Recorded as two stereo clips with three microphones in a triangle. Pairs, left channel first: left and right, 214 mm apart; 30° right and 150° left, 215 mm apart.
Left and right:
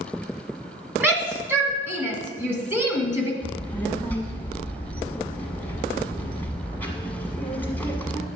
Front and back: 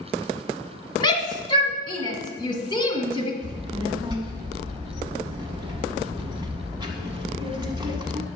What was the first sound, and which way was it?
A shout, 30° right.